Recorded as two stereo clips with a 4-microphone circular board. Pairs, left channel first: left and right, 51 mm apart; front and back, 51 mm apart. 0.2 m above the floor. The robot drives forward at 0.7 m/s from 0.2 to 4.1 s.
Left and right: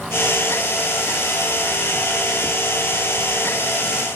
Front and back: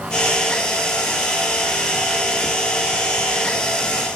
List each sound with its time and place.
Only background noise.